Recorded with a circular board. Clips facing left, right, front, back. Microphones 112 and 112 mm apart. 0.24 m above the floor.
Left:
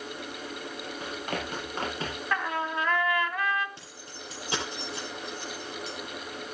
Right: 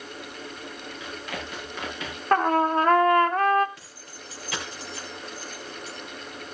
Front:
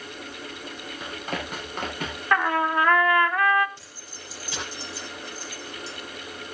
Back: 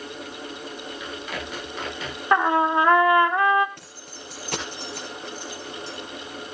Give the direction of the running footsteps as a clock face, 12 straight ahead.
10 o'clock.